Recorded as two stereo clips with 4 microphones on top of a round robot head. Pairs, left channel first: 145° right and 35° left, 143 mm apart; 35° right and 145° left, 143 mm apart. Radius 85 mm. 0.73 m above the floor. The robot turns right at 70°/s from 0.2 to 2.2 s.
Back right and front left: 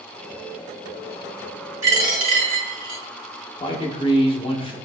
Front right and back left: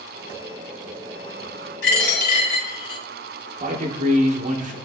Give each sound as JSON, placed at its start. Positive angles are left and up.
{"t": 1.8, "sound": "a dropped coin", "azimuth_deg": -35, "distance_m": 1.5}
{"t": 3.6, "sound": "a man speaking", "azimuth_deg": 165, "distance_m": 0.9}